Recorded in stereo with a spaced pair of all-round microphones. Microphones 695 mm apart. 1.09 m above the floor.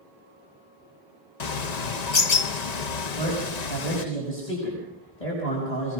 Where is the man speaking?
75° left (ahead or behind), 6 m.